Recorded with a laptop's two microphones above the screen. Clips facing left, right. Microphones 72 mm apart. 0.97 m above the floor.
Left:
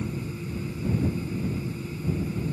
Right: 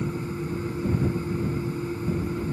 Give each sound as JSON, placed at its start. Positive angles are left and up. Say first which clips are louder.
{"t": 0.0, "sound": "a fan", "louder": "right 3 dB", "side_deg": -35}